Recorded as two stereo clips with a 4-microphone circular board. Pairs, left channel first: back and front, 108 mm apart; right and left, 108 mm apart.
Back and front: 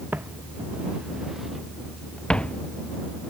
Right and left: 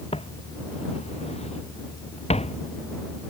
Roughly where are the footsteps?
Right.